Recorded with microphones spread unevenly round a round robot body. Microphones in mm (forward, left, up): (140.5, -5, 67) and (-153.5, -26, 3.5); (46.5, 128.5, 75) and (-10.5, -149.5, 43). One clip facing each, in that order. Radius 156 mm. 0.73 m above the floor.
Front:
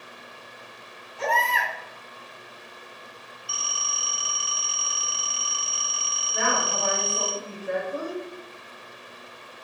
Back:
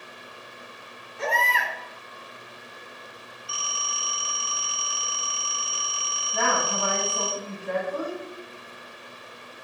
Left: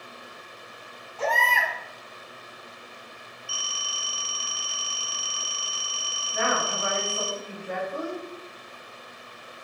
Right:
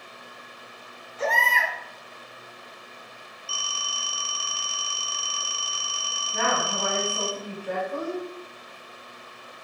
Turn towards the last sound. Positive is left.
turn(degrees=-60)